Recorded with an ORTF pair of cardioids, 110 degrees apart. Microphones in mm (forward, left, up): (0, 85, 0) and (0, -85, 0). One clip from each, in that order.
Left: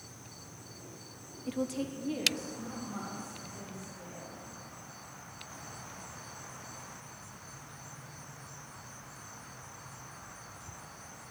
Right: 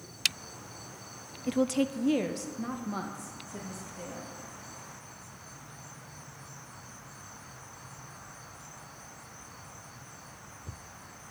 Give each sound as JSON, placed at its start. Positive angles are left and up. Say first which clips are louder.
{"t": 1.5, "sound": "a woman speaking", "louder": "right 7 dB", "azimuth_deg": -25, "distance_m": 0.6}